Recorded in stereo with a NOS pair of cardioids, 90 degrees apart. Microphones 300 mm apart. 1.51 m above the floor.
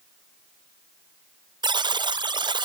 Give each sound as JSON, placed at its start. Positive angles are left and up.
{"t": 1.6, "sound": "a buzzer", "azimuth_deg": -15, "distance_m": 0.6}